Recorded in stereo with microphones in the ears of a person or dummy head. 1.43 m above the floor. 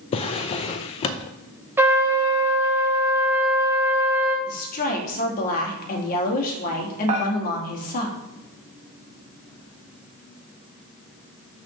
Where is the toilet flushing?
No toilet flushing in this recording.